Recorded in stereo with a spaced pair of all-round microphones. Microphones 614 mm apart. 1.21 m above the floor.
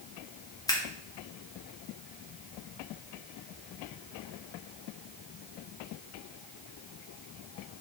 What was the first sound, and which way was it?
Scissors, 5° left (ahead or behind).